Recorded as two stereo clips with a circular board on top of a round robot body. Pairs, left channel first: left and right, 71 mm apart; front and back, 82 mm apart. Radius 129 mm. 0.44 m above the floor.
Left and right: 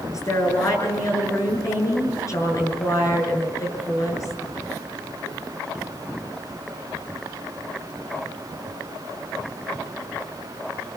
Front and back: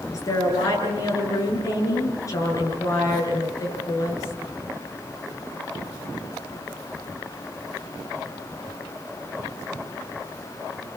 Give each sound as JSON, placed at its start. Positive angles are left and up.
{"t": 0.1, "sound": "a woman speaking", "azimuth_deg": 50, "distance_m": 8.5}